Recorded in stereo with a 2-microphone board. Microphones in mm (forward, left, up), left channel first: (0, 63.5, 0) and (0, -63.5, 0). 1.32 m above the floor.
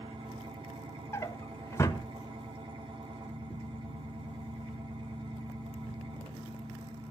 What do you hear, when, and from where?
0.0 s an engine running: 45° right (ahead or behind), 2.5 m
1.1 s a drawer: 25° left (ahead or behind), 1.2 m